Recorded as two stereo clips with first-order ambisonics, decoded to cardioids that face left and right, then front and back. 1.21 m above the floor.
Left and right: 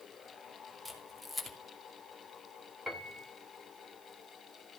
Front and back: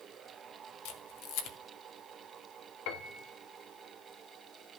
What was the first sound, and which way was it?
A camera shutter, straight ahead.